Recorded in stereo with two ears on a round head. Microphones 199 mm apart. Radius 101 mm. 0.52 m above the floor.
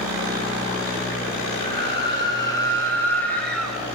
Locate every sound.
1.6 s a scream: 25° left (ahead or behind), 3.5 m; by 3.8 s centre (ahead or behind), 3 m